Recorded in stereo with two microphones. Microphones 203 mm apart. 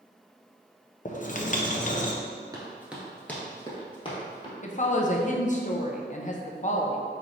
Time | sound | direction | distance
1.1 | writing | 40° left (ahead or behind) | 0.5 m
2.5 | running footsteps | 20° right (ahead or behind) | 1.2 m
4.6 | a woman speaking | 40° left (ahead or behind) | 0.6 m